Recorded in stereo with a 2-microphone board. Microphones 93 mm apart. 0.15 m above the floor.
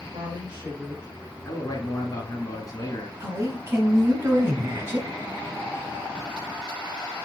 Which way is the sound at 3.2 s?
25° right (ahead or behind).